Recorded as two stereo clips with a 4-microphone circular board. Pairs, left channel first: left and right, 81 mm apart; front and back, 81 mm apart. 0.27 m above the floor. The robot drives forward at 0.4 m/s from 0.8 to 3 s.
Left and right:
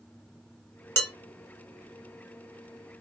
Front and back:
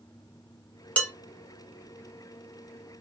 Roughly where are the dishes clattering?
Ahead left.